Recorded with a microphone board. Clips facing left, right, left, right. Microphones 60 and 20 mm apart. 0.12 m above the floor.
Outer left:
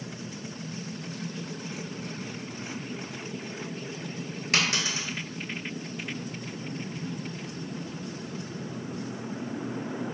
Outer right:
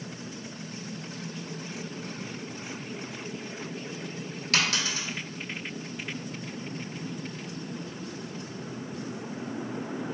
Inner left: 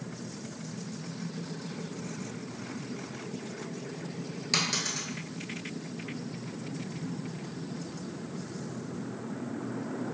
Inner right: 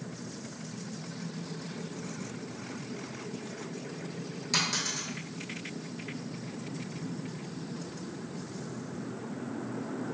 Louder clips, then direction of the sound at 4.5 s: Even, inner left 1 dB; 25° left (ahead or behind).